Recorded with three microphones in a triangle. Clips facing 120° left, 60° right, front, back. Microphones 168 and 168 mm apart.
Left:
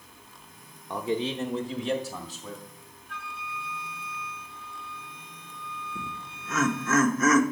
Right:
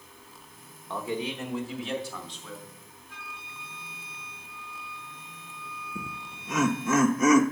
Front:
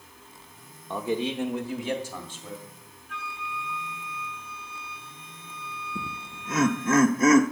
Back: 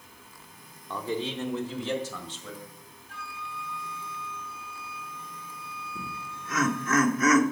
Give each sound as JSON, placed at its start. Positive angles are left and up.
{"t": 0.9, "sound": "a man speaking", "azimuth_deg": 60, "distance_m": 0.8}
{"t": 3.1, "sound": "a flute", "azimuth_deg": 130, "distance_m": 3.0}
{"t": 6.0, "sound": "laughter", "azimuth_deg": 0, "distance_m": 0.8}